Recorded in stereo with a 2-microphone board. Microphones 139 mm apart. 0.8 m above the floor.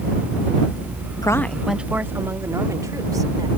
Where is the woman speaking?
25° left (ahead or behind); by 3.5 s 30° right (ahead or behind).